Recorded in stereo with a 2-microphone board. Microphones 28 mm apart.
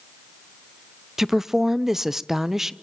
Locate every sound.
1.2 s a woman speaking: 15° right (ahead or behind), 0.6 m